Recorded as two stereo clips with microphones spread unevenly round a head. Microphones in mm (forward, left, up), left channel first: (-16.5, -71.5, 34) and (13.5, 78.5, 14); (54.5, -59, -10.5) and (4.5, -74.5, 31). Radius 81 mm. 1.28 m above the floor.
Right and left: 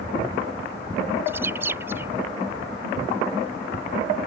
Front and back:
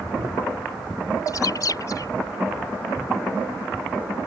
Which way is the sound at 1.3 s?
Straight ahead.